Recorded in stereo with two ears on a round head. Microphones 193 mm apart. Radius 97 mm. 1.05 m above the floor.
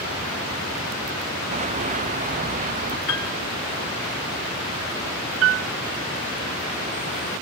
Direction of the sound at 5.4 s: 70° right (ahead or behind).